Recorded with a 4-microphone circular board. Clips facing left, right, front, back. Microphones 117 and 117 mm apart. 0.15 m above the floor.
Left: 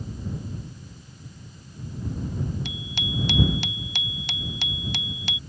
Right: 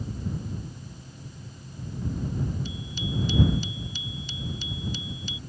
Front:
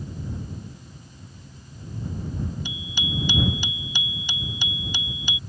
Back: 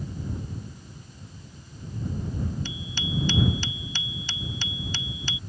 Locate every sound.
2.6 s a bicycle bell: 75° left